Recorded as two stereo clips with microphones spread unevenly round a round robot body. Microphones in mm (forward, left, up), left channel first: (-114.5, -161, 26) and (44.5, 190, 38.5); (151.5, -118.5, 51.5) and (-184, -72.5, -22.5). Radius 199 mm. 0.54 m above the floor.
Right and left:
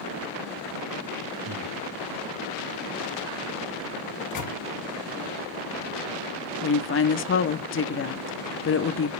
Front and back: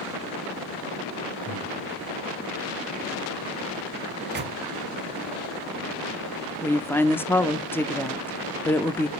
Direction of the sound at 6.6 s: 105° right.